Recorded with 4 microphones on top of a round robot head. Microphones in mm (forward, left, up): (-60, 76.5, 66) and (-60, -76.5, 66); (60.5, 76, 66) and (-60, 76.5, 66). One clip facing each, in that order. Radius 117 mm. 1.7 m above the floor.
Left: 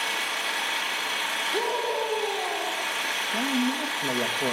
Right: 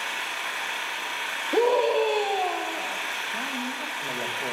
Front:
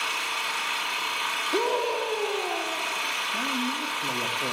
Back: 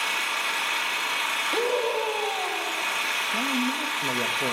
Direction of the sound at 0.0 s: 145° left.